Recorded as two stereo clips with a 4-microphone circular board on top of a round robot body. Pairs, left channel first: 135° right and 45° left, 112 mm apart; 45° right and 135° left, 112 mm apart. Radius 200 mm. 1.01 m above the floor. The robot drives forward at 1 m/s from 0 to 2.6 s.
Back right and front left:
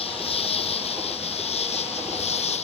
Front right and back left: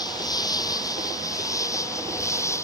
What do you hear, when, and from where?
0.0 s an insect: 100° right; by 2.6 s 110° right